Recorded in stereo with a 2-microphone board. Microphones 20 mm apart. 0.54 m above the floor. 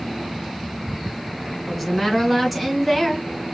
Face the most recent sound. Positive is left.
turn(degrees=0)  # may be behind; listen again after turning